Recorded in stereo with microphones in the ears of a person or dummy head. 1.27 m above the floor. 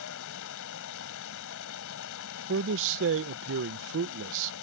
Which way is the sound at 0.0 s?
70° left (ahead or behind).